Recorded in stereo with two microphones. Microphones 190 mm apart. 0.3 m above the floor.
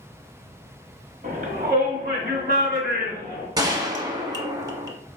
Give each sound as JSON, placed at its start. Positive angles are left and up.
{"t": 1.2, "sound": "a shout", "side_deg": -50, "distance_m": 1.3}
{"t": 3.6, "sound": "a gunshot", "side_deg": -20, "distance_m": 0.6}